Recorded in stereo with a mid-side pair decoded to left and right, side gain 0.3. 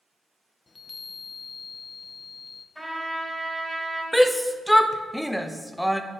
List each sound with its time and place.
0.7 s a chime: 40° left, 0.8 m
2.8 s a trumpet: straight ahead, 4 m
4.1 s a shout: 5° left, 1.0 m